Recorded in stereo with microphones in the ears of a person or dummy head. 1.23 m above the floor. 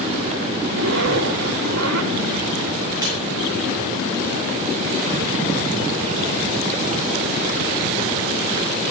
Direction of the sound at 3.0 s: 20° right (ahead or behind).